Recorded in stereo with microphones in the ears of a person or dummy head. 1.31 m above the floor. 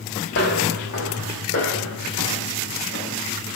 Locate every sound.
0.3 s footsteps: 60° left (ahead or behind), 2.5 m; by 3.2 s 70° left (ahead or behind), 4 m